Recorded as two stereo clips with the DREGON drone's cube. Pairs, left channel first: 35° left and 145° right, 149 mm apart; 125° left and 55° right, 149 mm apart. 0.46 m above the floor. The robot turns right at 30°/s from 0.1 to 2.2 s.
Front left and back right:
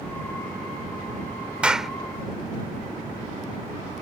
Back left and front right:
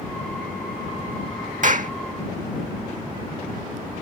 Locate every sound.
1.6 s a clap: 65° right; by 1.9 s 55° right